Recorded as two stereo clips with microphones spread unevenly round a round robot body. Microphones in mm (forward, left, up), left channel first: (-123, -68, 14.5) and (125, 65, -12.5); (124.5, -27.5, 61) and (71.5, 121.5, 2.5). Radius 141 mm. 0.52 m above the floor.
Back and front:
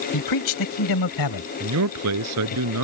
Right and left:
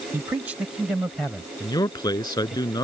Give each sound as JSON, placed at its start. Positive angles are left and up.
{"t": 0.1, "sound": "a man speaking", "azimuth_deg": 180}
{"t": 1.6, "sound": "a man speaking", "azimuth_deg": -5}